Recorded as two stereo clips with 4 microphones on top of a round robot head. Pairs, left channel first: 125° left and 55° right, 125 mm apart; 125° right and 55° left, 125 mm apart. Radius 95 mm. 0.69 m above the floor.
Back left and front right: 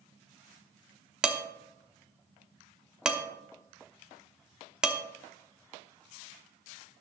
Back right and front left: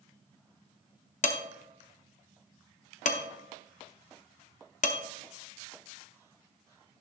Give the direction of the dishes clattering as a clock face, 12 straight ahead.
5 o'clock.